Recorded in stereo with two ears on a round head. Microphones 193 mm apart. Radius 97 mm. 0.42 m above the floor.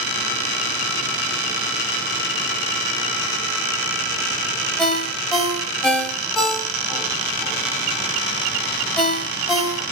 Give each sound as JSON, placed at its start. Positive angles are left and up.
{"t": 4.8, "sound": "a ringtone", "side_deg": 0, "distance_m": 0.9}